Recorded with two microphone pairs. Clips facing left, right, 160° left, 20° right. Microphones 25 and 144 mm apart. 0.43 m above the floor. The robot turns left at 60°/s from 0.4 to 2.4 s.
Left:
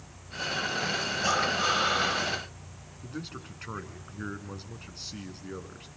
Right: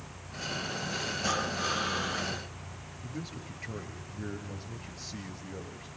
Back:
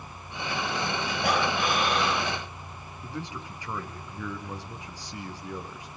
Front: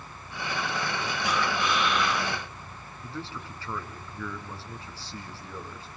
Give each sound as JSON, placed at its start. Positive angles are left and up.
{"t": 1.2, "sound": "breathing", "azimuth_deg": 160, "distance_m": 2.0}
{"t": 3.0, "sound": "a man speaking", "azimuth_deg": 85, "distance_m": 5.0}